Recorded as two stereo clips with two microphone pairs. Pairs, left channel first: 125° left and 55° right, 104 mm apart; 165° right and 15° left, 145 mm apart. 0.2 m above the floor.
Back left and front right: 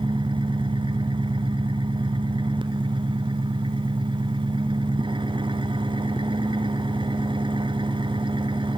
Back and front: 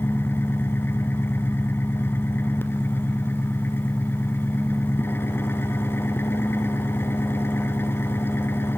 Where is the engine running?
90° right, 1.9 m.